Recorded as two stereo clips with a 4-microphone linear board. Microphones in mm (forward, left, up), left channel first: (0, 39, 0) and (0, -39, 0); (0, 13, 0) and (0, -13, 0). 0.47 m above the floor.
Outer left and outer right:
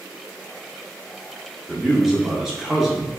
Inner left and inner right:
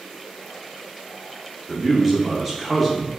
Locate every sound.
1.7 s a man speaking: 5° right (ahead or behind), 0.7 m